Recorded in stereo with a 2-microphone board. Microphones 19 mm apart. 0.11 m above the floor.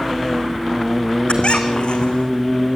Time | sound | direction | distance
1.3 | a squeak | 80° left | 2.5 m